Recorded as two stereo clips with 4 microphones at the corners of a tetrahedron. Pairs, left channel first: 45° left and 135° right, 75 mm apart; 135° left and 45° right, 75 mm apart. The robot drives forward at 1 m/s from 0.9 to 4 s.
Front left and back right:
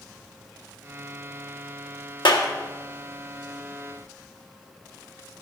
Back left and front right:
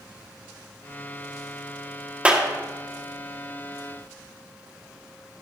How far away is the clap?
About 1.5 m.